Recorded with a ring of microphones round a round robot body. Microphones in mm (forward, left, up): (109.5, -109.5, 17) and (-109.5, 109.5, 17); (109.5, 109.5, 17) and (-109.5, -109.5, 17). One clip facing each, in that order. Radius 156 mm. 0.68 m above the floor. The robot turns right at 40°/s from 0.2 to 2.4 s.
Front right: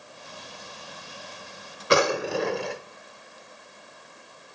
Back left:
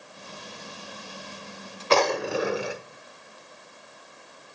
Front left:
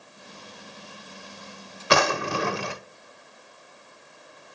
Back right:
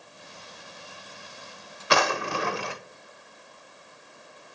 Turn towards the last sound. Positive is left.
turn(degrees=50)